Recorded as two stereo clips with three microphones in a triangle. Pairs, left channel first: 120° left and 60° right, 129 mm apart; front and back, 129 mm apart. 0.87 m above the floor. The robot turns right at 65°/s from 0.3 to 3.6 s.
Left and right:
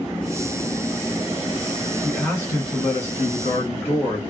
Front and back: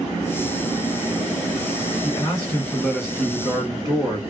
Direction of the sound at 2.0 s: 30° left.